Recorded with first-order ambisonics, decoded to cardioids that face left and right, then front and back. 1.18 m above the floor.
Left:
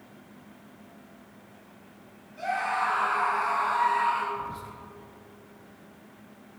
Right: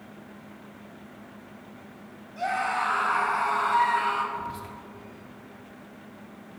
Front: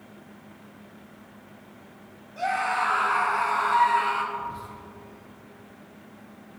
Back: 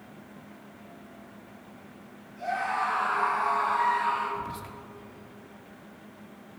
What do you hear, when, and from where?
2.4 s a scream: 45° right, 5 m; by 4.2 s 50° right, 5.5 m
4.3 s whispering: 145° right, 2.5 m